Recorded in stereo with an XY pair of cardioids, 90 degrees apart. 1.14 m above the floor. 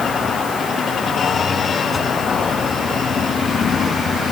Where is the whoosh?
25° left.